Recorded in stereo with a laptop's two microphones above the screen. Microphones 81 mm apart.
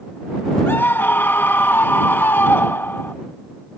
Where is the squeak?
No squeak in this recording.